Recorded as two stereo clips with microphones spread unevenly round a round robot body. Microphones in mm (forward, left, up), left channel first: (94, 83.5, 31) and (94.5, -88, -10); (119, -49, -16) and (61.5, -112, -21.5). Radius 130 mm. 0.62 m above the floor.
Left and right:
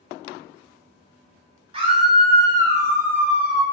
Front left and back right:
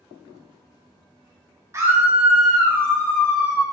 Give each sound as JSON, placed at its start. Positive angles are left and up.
{"t": 1.7, "sound": "a scream", "azimuth_deg": -100, "distance_m": 0.7}